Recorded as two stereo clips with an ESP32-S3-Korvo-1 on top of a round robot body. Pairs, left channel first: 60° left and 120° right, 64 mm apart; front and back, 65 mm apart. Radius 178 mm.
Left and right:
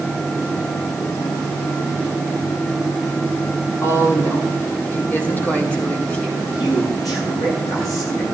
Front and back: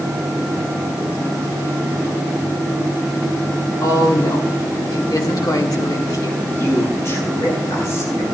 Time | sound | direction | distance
3.8 | a woman speaking | 20° left | 3 m
6.4 | a man speaking | 45° left | 8.5 m